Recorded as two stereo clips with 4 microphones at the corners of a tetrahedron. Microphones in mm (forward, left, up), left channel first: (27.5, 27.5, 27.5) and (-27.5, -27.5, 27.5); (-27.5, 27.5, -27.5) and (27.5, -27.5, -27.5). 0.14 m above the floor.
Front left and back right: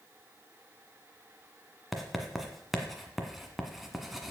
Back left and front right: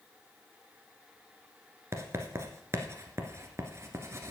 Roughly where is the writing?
Ahead right.